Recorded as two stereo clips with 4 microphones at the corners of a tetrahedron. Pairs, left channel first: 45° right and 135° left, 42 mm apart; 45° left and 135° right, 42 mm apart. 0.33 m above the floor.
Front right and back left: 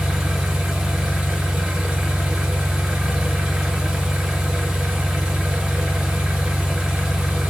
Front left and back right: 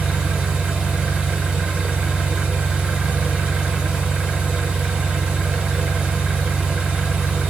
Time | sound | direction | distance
0.0 | an engine running | 160° right | 1.0 m